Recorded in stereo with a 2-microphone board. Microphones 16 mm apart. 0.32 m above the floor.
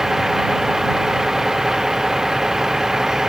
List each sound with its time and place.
0.0 s a vehicle: 25° right (ahead or behind); by 3.3 s 30° right (ahead or behind)